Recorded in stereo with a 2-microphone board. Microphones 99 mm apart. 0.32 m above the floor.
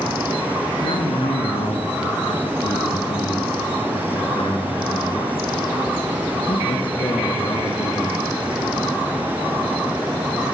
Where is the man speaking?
65° left (ahead or behind), 4.5 m.